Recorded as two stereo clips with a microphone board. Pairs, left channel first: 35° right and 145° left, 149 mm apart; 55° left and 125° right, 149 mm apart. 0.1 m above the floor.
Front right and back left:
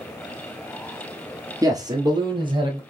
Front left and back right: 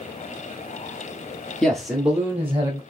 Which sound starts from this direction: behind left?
A man speaking, at 1.6 s.